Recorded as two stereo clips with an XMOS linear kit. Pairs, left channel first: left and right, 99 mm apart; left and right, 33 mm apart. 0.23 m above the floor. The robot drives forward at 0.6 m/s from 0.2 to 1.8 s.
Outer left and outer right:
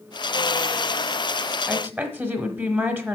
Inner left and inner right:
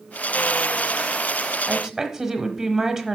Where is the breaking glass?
No breaking glass in this recording.